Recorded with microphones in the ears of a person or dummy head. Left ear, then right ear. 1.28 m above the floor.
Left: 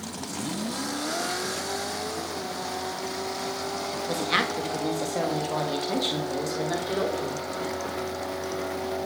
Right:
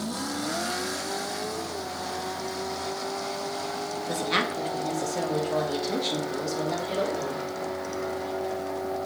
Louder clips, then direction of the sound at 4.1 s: Left 1 dB; 10° left (ahead or behind).